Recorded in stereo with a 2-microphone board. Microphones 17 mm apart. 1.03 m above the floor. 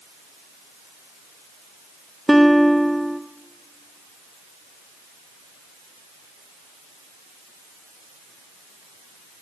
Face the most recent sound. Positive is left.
turn(degrees=5)  # may be behind; listen again after turning